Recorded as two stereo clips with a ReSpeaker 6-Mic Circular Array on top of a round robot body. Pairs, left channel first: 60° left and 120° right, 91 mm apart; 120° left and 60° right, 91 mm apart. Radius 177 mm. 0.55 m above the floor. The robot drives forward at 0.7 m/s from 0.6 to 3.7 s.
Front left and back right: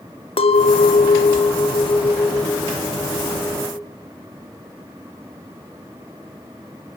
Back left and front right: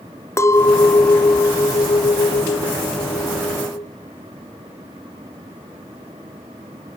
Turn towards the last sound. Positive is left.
turn(degrees=140)